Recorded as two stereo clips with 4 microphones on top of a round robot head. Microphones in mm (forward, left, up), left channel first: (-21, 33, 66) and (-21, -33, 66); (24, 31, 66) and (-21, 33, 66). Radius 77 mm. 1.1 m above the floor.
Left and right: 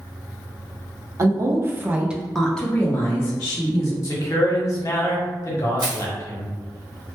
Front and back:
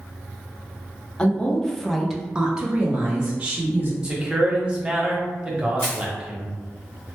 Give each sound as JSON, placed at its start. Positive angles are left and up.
{"t": 1.2, "sound": "a woman speaking", "azimuth_deg": -70, "distance_m": 0.8}
{"t": 4.0, "sound": "a man speaking", "azimuth_deg": 110, "distance_m": 1.0}
{"t": 5.8, "sound": "crushing", "azimuth_deg": -55, "distance_m": 0.8}